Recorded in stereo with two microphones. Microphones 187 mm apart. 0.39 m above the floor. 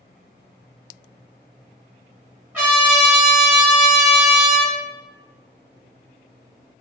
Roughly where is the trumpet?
Centre.